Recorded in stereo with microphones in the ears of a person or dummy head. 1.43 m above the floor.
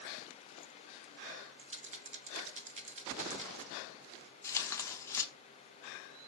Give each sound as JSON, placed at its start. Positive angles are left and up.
{"t": 1.6, "sound": "a rattle", "side_deg": -35, "distance_m": 0.7}
{"t": 4.4, "sound": "tearing paper", "side_deg": 20, "distance_m": 0.7}